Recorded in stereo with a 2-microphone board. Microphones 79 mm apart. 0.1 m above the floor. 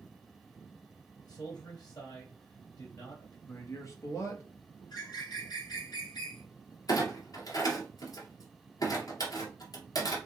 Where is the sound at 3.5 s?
40° left (ahead or behind), 1.3 m.